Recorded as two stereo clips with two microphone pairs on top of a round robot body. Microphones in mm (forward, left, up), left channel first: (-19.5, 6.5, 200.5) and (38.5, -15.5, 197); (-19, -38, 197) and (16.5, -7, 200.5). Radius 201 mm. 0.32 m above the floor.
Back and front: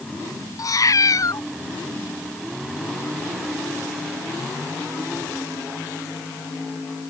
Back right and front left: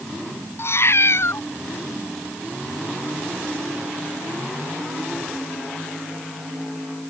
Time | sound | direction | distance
0.6 | a cat meowing | 170° right | ?